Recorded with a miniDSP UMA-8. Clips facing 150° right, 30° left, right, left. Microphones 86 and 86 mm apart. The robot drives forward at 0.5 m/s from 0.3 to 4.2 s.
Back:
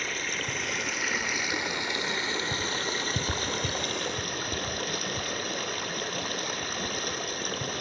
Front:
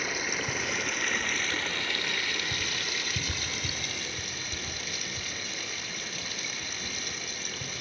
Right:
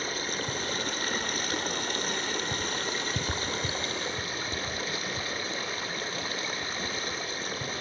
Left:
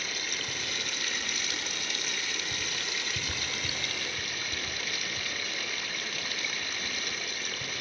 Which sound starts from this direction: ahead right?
Running water, at 0.0 s.